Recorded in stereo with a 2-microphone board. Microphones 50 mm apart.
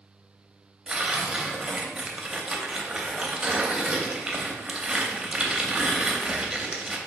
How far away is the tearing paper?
About 0.5 m.